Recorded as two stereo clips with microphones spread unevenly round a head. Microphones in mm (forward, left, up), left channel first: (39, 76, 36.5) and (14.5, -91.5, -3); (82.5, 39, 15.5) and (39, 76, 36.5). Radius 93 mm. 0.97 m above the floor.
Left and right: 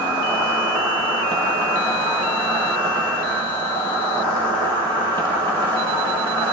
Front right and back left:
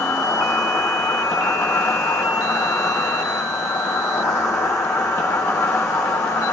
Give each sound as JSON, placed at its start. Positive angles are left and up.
{"t": 0.0, "sound": "an insect", "azimuth_deg": -35, "distance_m": 5.0}